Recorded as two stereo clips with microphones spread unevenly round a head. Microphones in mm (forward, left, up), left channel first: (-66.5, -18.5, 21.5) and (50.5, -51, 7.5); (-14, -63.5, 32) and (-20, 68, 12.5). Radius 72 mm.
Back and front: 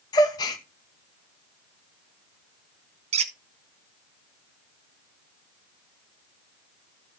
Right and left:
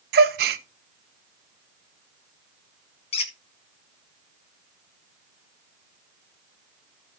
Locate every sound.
0.1 s a gasp: 100° left, 0.8 m
3.1 s a squeak: 50° right, 1.0 m